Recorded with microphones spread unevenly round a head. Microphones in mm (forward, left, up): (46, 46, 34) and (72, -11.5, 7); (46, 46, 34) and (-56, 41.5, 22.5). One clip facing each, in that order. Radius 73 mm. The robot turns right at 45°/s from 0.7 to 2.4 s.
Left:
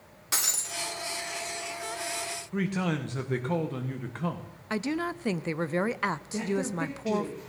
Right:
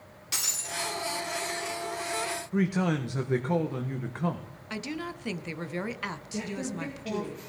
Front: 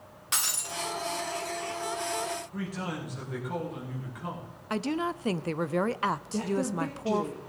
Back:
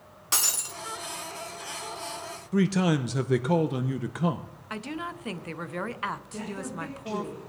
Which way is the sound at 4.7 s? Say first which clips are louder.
Left 6 dB, front 6 dB; 65° left.